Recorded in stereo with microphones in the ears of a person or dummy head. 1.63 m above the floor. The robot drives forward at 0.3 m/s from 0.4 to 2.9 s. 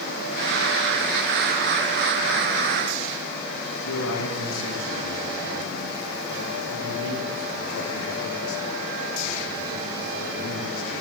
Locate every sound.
3.8 s a man speaking: 75° left (ahead or behind), 1.8 m